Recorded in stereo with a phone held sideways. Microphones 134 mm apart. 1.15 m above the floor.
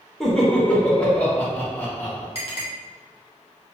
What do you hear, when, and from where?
0.2 s laughter: centre (ahead or behind), 1.2 m; by 2.2 s 15° left (ahead or behind), 2 m
2.4 s a clink: 45° left (ahead or behind), 1.0 m